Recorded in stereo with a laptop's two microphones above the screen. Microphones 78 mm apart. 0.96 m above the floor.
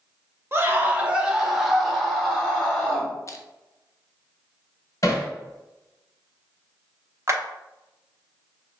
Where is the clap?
40° right (ahead or behind), 0.7 m.